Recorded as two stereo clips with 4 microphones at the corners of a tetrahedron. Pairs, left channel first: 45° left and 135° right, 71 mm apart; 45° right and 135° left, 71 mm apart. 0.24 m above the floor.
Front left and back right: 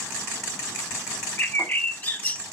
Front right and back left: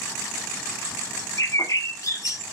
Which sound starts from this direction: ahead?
A bird, at 1.4 s.